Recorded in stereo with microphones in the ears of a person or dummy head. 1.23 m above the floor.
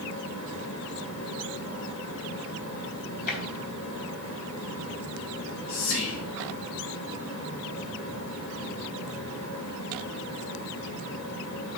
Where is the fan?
60° left (ahead or behind), 2.5 m.